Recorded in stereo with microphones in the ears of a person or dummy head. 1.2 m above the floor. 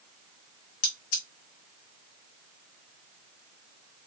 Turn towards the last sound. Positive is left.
turn(degrees=50)  # may be behind; listen again after turning